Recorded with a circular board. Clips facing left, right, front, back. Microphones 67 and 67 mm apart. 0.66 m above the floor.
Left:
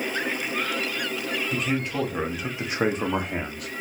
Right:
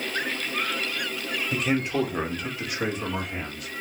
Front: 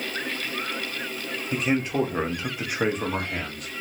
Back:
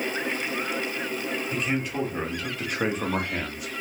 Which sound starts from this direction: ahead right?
A man speaking, at 1.5 s.